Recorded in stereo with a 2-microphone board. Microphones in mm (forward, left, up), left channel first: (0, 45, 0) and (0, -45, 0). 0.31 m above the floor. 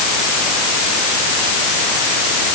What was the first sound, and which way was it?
Only background noise.